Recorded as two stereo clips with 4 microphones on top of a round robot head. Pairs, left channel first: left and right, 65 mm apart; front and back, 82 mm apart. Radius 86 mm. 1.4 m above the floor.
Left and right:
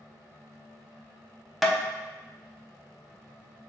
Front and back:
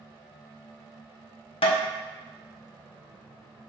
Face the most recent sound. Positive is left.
turn(degrees=0)